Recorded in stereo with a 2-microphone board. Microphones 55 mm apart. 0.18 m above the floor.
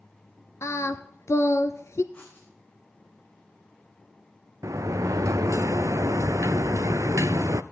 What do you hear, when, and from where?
0.6 s singing: 55° left (ahead or behind), 0.9 m
2.1 s writing: 25° left (ahead or behind), 6 m
4.6 s a sliding door: 80° right, 0.5 m